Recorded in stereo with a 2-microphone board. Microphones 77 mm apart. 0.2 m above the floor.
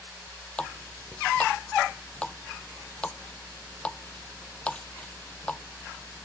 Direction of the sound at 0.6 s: 15° left (ahead or behind).